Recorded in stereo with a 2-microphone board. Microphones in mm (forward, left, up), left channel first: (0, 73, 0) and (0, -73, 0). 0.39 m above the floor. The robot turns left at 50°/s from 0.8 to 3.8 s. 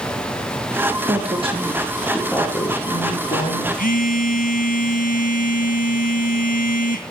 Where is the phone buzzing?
75° left (ahead or behind), 2.5 m.